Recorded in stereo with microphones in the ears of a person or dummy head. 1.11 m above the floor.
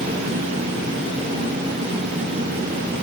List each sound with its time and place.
Only background noise.